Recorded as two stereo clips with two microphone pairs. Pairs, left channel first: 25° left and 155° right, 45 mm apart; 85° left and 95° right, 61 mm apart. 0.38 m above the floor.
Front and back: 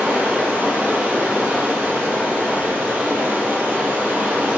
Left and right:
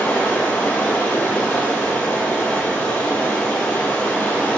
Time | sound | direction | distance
0.0 | running water | 150° left | 0.8 m